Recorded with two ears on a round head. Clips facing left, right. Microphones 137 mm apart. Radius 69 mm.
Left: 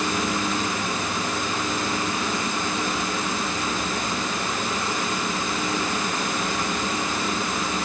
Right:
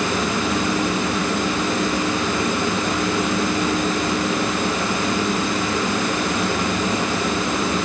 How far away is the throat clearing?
I don't hear throat clearing.